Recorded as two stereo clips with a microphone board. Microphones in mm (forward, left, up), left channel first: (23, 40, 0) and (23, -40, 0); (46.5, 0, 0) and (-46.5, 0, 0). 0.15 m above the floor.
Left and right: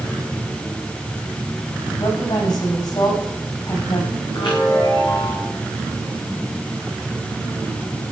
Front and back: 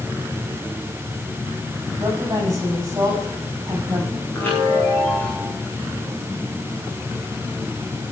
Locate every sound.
2.0 s a woman speaking: 120° left, 7 m
4.3 s a chime: 70° left, 6 m